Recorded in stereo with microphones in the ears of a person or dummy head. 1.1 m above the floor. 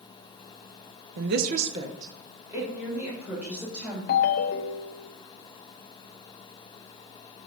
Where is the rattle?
No rattle in this recording.